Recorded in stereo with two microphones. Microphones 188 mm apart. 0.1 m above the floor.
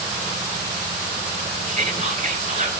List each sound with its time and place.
1.7 s whispering: 30° right (ahead or behind), 1.5 m